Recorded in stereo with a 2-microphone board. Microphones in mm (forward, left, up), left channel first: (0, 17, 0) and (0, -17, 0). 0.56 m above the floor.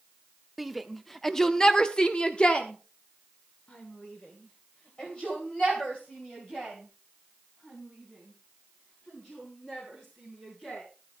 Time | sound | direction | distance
0.6 | a shout | centre (ahead or behind) | 1.2 m